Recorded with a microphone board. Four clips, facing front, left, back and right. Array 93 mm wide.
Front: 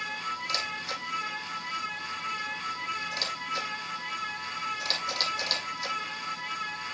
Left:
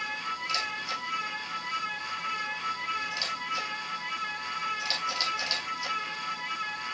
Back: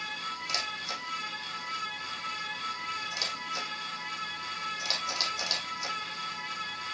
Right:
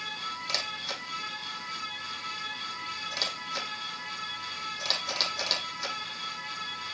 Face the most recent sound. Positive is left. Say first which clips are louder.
# left 4 dB, front 2 dB
turn(degrees=-105)